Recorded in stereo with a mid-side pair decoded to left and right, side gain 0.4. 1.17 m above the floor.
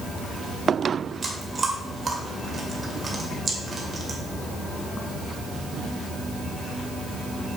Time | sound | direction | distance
1.2 | chewing | 40° right | 2 m